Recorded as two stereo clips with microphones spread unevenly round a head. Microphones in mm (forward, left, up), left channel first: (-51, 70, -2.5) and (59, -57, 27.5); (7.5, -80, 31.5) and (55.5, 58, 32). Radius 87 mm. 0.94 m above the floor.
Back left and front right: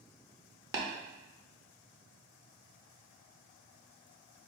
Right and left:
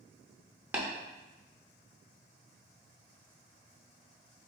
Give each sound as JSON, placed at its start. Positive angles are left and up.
{"t": 0.7, "sound": "tapping", "azimuth_deg": 0, "distance_m": 0.7}